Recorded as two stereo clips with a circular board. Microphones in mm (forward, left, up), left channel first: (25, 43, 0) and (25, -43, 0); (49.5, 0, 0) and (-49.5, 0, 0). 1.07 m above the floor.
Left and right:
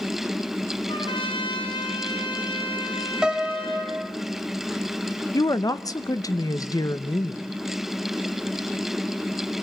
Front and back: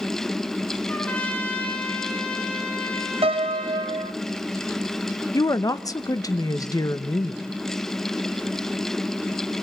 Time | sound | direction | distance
0.9 | a trumpet | 80° left | 4 m
3.2 | a piano | 170° right | 1.0 m
5.3 | a woman speaking | 50° left | 0.9 m